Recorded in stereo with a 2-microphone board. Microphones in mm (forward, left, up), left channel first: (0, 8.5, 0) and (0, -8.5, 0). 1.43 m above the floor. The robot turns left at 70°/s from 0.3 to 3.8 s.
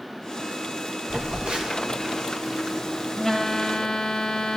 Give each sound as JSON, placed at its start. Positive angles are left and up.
{"t": 1.1, "sound": "a phone buzzing", "azimuth_deg": -55, "distance_m": 4.0}